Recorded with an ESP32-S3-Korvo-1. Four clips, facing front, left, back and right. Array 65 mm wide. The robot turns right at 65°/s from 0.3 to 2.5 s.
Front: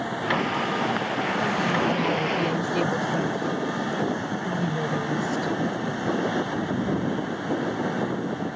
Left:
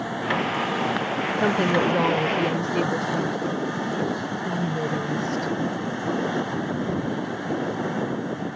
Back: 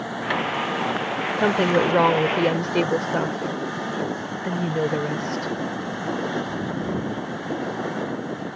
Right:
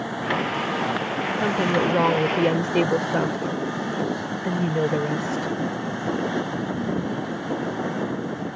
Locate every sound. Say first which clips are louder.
1.4 s a woman speaking: left 1 dB, back 7 dB; 160° left; by 5.5 s 130° right